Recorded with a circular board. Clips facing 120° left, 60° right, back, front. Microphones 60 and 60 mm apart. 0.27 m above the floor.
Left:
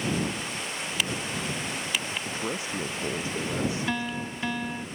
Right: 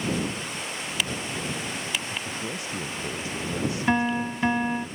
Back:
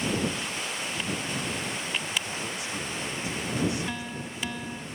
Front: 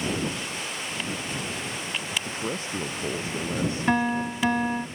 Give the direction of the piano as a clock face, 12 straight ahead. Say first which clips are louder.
Right 7 dB, front 11 dB; 12 o'clock.